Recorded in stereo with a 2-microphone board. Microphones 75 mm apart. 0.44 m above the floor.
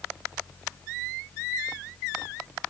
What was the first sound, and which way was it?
Only background noise.